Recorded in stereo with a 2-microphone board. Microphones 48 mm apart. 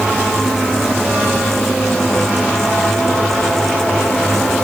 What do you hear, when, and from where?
Only background noise.